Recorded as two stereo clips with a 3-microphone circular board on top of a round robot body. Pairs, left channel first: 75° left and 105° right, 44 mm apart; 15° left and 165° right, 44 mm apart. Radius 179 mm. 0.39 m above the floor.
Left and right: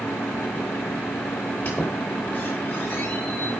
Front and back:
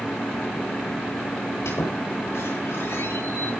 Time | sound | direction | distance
1.6 | a squeak | 15° left | 9 m